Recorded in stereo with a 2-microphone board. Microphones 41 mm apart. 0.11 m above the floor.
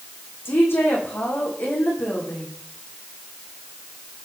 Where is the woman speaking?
70° left (ahead or behind), 7 m.